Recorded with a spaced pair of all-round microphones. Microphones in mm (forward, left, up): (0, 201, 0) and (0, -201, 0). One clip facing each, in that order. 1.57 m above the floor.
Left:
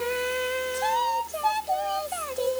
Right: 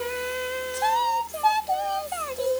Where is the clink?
I don't hear a clink.